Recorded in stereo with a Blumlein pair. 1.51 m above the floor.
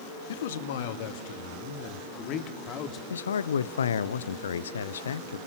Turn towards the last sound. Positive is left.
turn(degrees=65)